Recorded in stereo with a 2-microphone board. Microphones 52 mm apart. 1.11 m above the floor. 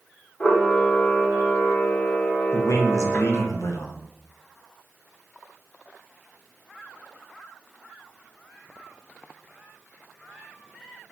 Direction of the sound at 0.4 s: 30° left (ahead or behind).